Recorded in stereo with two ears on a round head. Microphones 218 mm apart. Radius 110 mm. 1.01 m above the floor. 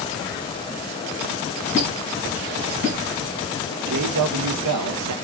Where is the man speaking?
75° right (ahead or behind), 0.6 m.